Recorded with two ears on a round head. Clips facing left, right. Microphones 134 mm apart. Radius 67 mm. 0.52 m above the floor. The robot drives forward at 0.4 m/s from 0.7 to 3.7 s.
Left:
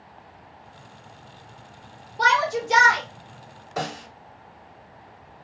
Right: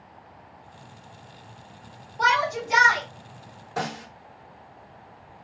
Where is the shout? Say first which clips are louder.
Left 2 dB; 40° left (ahead or behind), 1.7 m; by 3.0 s 35° left (ahead or behind), 1.8 m.